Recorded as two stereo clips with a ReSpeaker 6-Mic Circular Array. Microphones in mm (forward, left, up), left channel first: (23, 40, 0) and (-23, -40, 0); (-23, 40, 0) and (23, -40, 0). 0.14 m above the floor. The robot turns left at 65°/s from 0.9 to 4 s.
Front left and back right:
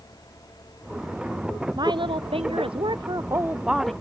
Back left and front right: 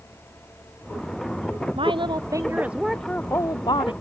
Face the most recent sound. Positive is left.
turn(degrees=140)